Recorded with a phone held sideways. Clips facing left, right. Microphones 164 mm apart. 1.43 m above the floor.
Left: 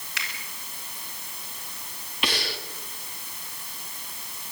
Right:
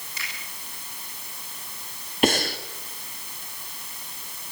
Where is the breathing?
45° right (ahead or behind), 1.8 m.